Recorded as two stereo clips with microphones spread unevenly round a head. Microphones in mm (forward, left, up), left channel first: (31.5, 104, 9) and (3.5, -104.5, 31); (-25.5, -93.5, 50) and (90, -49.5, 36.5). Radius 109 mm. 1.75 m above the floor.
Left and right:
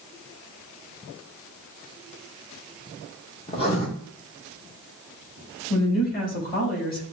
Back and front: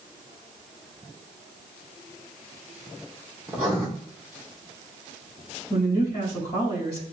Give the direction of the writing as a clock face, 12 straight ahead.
8 o'clock.